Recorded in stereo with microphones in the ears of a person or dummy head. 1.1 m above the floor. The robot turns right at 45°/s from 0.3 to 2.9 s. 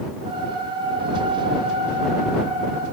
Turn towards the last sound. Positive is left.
No sound to turn to.